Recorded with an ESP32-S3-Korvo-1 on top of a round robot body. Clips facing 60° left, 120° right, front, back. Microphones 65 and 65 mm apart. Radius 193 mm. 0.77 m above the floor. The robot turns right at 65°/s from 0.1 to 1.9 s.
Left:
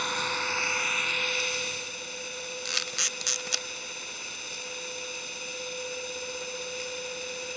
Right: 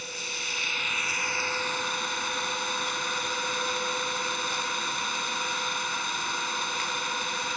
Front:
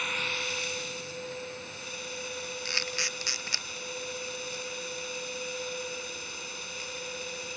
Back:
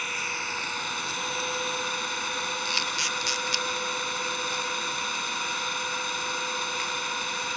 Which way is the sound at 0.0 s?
95° left.